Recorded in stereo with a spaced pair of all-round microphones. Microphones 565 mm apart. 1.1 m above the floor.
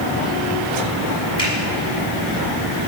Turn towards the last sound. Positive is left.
turn(degrees=45)  # may be behind; listen again after turning